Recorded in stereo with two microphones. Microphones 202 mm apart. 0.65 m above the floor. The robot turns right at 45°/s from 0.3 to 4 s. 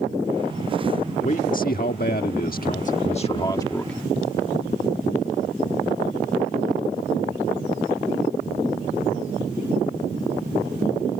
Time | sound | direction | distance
1.2 | a man speaking | 50° left | ?